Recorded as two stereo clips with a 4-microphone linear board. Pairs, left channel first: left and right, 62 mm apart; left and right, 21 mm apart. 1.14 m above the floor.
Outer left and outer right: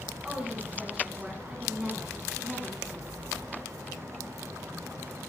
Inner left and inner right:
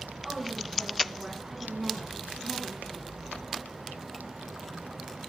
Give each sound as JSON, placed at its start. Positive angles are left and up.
{"t": 0.2, "sound": "a woman speaking", "side_deg": -10, "distance_m": 8.5}